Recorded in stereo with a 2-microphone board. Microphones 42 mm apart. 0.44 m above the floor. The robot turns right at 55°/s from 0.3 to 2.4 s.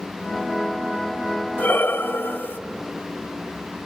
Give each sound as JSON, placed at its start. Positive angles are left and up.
{"t": 1.6, "sound": "breathing", "azimuth_deg": 65, "distance_m": 1.0}